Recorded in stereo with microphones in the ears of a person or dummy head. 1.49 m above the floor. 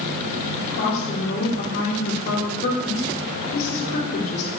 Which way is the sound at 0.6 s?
40° left (ahead or behind).